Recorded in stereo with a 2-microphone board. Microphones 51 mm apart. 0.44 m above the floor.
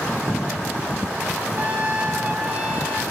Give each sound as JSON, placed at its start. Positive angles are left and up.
{"t": 1.6, "sound": "a trumpet", "side_deg": -35, "distance_m": 1.7}